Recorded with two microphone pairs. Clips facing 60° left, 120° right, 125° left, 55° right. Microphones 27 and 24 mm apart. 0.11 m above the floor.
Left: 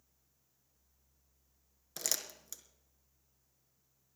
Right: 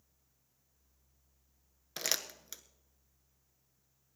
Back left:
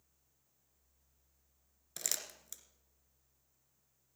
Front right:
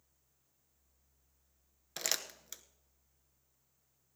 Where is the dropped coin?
I don't hear a dropped coin.